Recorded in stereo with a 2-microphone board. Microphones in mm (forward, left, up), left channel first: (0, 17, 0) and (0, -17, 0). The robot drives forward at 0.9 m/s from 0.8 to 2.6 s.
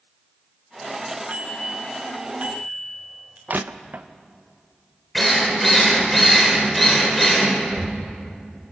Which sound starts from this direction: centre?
A drill, at 5.2 s.